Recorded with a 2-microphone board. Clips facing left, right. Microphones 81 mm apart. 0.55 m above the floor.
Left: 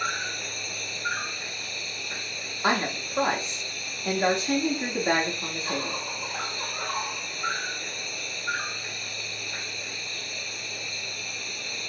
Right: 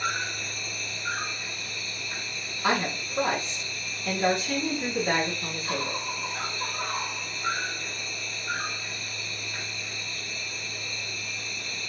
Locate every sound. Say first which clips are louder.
0.0 s an insect: even; 55° left (ahead or behind), 1.1 m
2.6 s a woman speaking: left 1 dB; 35° left (ahead or behind), 0.9 m